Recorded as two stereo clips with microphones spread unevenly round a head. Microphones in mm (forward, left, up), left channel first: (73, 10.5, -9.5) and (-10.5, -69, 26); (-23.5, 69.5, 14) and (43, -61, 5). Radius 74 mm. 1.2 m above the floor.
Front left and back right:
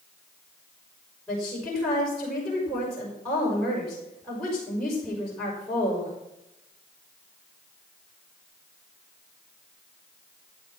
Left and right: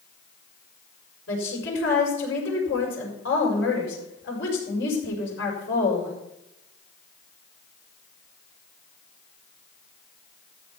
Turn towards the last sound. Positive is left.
turn(degrees=130)